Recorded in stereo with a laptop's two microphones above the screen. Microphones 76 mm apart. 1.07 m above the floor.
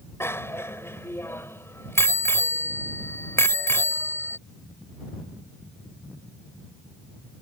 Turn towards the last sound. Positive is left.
turn(degrees=35)  # may be behind; listen again after turning